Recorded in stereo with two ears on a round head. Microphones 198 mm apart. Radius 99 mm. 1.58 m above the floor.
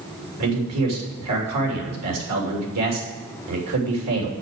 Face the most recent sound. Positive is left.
turn(degrees=-80)